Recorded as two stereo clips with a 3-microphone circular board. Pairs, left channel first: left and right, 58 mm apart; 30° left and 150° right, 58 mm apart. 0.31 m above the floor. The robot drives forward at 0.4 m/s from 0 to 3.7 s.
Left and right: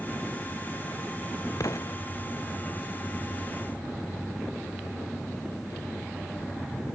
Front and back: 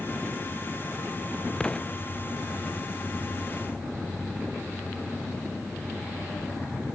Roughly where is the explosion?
Left.